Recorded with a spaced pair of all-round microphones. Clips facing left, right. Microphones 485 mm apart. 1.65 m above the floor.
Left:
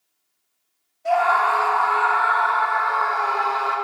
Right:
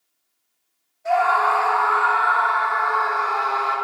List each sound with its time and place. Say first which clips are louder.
1.1 s a scream: even; 50° left (ahead or behind), 3.5 m; by 3.8 s 55° left (ahead or behind), 7.5 m